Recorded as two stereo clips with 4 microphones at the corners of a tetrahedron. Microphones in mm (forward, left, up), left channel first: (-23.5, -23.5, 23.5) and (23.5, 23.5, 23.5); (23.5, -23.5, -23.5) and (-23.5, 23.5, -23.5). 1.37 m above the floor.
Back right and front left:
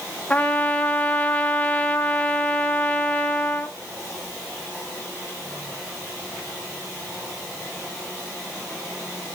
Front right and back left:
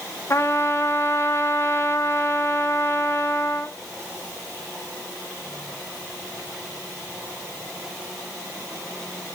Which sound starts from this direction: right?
A trumpet, at 0.3 s.